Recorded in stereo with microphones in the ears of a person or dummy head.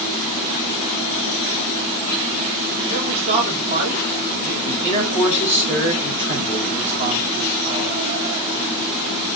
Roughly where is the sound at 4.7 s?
Centre.